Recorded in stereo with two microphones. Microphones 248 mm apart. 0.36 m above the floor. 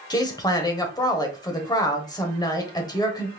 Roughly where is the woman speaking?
Centre.